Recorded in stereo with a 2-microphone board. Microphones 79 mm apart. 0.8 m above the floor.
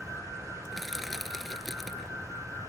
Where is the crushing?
Centre (ahead or behind).